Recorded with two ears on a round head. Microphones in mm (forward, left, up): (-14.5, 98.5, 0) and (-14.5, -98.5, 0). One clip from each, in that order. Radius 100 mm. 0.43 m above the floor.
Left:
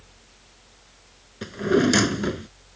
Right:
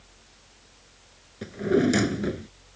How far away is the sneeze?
I don't hear a sneeze.